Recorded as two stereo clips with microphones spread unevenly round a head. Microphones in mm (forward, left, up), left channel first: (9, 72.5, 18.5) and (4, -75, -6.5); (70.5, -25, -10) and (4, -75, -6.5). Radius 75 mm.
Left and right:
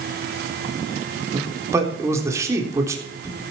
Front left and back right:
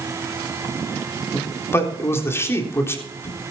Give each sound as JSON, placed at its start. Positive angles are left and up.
{"t": 1.3, "sound": "a man speaking", "azimuth_deg": -20, "distance_m": 3.5}